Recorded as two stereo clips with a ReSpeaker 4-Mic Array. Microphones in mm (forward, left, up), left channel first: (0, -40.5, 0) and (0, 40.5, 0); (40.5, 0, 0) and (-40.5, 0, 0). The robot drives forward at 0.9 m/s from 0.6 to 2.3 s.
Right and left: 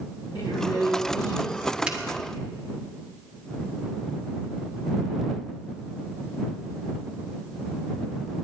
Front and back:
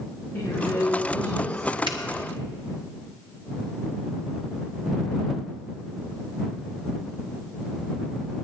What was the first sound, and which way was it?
A woman speaking, 70° right.